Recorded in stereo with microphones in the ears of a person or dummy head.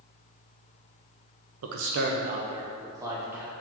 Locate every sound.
1.6 s a man speaking: 75° right (ahead or behind), 0.5 m; by 3.5 s 10° right (ahead or behind), 1.2 m